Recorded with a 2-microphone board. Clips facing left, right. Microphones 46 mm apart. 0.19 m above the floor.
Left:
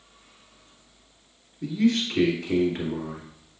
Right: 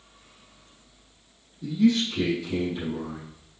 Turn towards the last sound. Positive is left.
turn(degrees=60)  # may be behind; listen again after turning